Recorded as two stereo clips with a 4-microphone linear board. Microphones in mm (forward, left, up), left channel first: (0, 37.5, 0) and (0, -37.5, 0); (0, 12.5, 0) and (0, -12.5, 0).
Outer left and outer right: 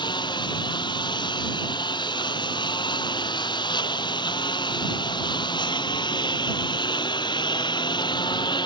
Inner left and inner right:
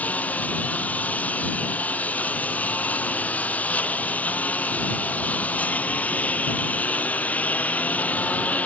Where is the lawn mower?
80° left.